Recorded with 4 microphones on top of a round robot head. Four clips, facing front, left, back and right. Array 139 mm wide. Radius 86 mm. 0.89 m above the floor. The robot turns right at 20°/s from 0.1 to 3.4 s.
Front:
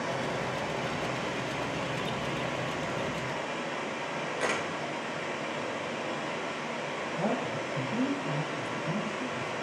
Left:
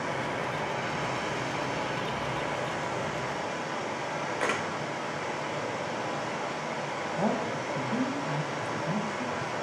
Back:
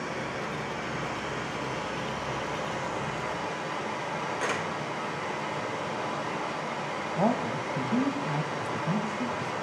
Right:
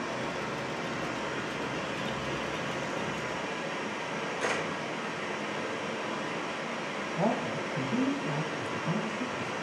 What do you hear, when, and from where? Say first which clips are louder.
0.0 s running water: left 3 dB, front 1 dB; 65° left, 1.4 m; by 9.6 s 130° left, 1.4 m
4.4 s a camera shutter: left 1 dB, front 1 dB; 70° left, 1.5 m
7.2 s a man speaking: even, back 5 dB; straight behind, 1.1 m